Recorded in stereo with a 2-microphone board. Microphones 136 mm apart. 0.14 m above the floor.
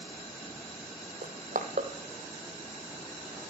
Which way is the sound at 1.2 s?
80° right.